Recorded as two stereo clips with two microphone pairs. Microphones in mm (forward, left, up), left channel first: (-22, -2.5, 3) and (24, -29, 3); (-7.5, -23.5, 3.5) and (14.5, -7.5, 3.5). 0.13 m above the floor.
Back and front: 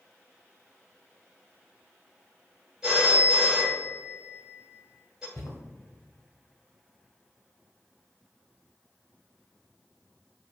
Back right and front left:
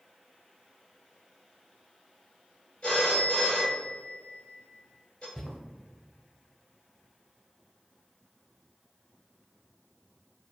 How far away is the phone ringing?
About 1.4 m.